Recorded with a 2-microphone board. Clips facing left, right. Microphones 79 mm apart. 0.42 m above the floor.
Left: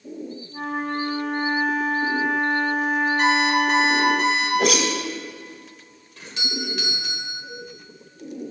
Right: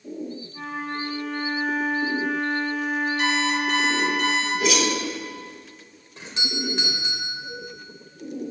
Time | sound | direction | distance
0.5 | a flute | 70° left (ahead or behind) | 1.8 m
3.2 | an alarm clock | 50° left (ahead or behind) | 4 m
4.6 | a whoosh | 70° left (ahead or behind) | 1.7 m
6.2 | a doorbell | 25° right (ahead or behind) | 1.9 m